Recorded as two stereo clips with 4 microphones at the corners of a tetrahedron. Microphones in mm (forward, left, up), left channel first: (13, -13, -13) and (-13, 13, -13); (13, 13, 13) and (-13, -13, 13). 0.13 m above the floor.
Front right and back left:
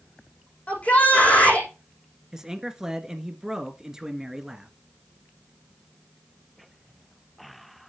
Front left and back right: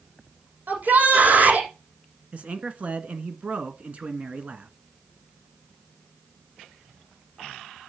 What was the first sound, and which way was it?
A shout, 100° right.